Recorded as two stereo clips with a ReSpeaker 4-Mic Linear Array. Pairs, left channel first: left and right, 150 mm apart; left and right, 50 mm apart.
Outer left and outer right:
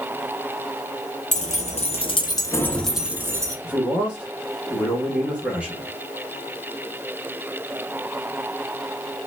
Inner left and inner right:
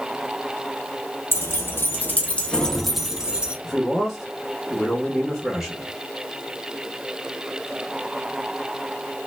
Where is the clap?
No clap in this recording.